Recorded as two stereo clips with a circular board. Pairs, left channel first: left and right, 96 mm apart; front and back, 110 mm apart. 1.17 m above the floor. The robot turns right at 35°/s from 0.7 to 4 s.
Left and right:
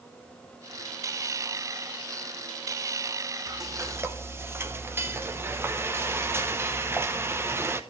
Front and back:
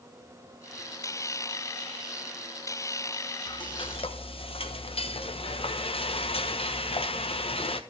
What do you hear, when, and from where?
3.5 s frying: 45° right, 0.9 m; by 7.8 s 25° right, 0.9 m